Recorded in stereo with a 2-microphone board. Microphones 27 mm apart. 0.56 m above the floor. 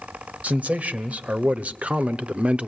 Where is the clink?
I don't hear a clink.